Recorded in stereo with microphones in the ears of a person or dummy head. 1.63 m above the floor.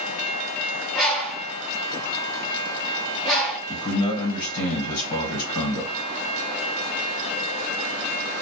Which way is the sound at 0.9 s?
10° left (ahead or behind).